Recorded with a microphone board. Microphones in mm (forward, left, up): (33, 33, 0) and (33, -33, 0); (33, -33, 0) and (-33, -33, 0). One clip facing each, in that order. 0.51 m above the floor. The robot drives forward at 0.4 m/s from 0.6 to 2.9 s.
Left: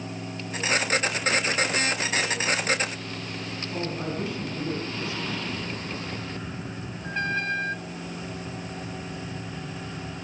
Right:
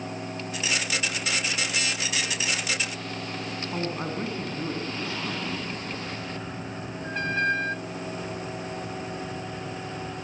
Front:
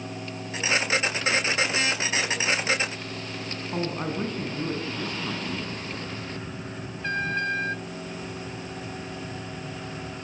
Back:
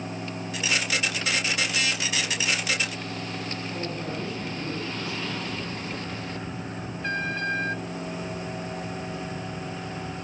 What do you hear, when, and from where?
3.7 s a man speaking: 35° right, 5 m